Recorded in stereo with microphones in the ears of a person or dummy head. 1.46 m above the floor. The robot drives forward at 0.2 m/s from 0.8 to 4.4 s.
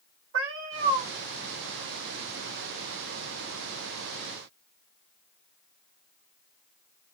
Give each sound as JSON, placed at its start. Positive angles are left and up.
{"t": 0.3, "sound": "a cat meowing", "side_deg": -60, "distance_m": 1.2}